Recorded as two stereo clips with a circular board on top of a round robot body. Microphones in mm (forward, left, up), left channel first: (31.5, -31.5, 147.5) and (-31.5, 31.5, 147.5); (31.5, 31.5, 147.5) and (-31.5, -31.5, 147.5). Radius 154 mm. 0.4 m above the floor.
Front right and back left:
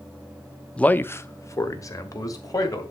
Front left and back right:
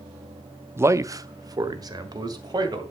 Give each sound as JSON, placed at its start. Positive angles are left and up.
{"t": 0.8, "sound": "a man speaking", "azimuth_deg": -110, "distance_m": 0.8}